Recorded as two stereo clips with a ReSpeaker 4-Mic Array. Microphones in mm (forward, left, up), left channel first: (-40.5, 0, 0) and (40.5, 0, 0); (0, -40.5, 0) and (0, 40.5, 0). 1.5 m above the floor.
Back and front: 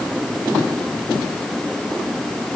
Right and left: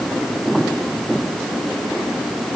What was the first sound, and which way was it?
Only background noise.